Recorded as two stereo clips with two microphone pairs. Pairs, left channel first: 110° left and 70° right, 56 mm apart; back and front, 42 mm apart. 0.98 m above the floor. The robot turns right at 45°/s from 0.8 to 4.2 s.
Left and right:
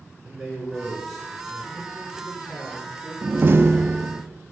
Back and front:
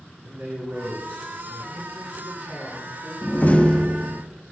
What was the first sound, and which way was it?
A man speaking, 10° left.